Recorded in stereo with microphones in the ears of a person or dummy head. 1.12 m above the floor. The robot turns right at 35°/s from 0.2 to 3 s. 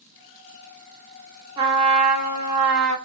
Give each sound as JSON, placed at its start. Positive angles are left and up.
{"t": 1.6, "sound": "a trumpet", "azimuth_deg": -155, "distance_m": 0.9}